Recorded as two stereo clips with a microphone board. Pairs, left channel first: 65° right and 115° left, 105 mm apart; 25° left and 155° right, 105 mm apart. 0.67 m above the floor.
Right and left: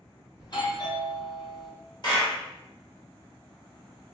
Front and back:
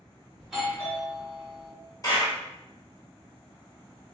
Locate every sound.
0.4 s a doorbell: 70° right, 2.0 m
2.0 s a clap: 30° right, 1.4 m